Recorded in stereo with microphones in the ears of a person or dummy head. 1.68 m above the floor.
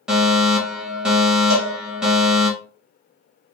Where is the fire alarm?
5° right (ahead or behind), 1.4 m.